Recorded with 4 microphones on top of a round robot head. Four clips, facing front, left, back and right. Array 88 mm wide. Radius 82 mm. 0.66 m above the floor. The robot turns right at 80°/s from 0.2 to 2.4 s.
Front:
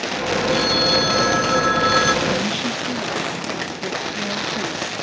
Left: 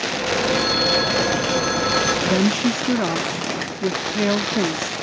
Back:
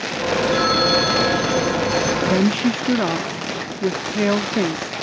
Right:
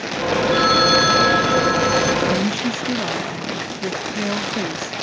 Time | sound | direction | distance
0.5 | a phone ringing | 125° right | ?
2.2 | a woman speaking | 140° left | ?